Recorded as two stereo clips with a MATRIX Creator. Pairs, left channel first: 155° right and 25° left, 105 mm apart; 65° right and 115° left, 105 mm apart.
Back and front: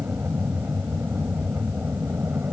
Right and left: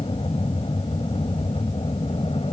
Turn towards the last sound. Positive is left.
turn(degrees=-50)